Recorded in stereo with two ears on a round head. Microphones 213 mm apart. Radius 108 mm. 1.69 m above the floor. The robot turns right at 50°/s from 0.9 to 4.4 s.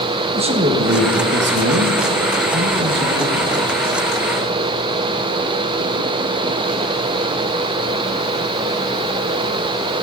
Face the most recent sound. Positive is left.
turn(degrees=25)